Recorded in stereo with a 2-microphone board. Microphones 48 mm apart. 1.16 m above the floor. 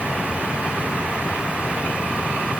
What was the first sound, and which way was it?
Only background noise.